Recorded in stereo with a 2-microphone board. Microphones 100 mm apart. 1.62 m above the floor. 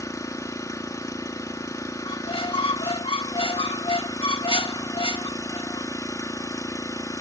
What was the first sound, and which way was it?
An engine running, 35° left (ahead or behind).